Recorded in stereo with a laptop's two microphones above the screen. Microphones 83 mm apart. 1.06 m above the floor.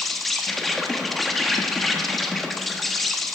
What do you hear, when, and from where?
0.0 s an insect: centre (ahead or behind), 0.9 m